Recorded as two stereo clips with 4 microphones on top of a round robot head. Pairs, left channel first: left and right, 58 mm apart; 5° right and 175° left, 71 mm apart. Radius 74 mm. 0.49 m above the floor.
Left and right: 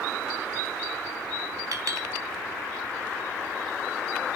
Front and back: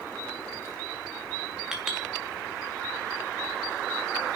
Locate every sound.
1.7 s a clink: 100° right, 2.5 m